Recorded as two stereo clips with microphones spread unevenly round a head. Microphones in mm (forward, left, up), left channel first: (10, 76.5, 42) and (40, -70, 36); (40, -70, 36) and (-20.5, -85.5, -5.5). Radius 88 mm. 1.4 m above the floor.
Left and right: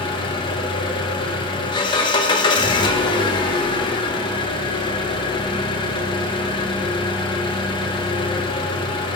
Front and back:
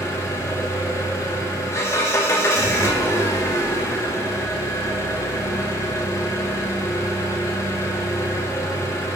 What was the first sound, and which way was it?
An engine running, 45° left.